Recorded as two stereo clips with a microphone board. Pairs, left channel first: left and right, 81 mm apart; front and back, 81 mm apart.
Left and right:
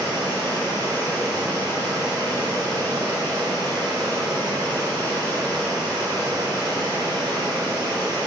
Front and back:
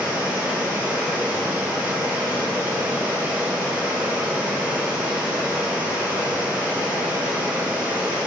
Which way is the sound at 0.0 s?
115° right.